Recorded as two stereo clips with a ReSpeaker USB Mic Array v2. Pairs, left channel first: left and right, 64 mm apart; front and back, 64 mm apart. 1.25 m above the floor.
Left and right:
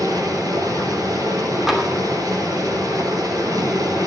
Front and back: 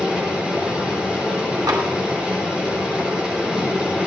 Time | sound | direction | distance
0.0 | running water | 105° right | 7.5 m
1.7 | tapping | 175° right | 2.5 m